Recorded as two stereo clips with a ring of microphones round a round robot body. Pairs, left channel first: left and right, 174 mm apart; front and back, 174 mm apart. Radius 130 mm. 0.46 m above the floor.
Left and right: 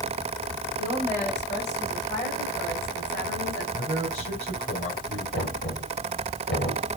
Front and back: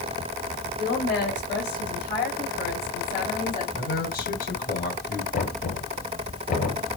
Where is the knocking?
40° left, 6 m.